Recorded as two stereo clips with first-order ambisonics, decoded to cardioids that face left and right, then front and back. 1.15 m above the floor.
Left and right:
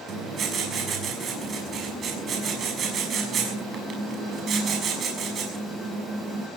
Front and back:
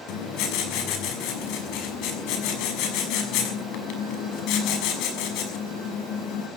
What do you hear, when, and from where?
0.1 s writing: 30° right, 6 m